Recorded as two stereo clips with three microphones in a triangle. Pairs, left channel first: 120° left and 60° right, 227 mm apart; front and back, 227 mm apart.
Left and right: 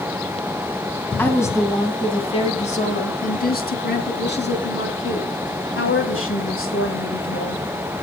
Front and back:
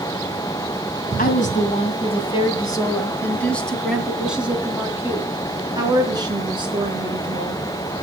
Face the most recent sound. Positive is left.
turn(degrees=115)